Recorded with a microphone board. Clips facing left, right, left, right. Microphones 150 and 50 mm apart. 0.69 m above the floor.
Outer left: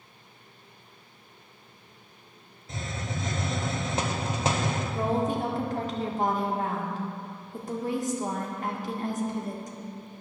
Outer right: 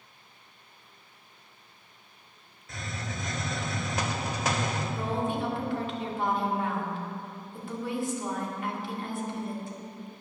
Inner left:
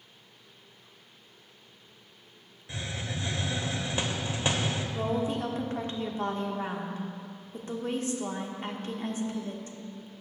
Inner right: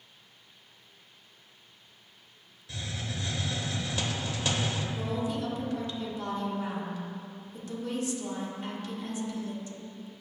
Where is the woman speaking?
40° left (ahead or behind), 1.3 m.